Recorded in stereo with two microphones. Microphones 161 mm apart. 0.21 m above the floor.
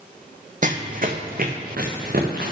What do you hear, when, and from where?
0.6 s running footsteps: 55° right (ahead or behind), 0.6 m; by 2.5 s 70° right (ahead or behind), 1.9 m